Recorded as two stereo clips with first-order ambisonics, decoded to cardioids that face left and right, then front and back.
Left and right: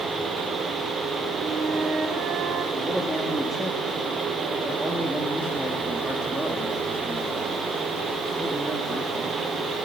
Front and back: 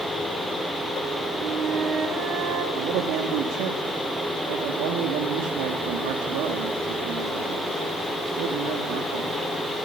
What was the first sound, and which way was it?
A flute, 135° right.